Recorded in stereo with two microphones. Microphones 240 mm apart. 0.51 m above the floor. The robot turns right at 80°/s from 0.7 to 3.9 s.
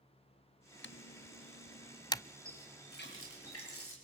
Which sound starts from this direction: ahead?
A running tap, at 2.5 s.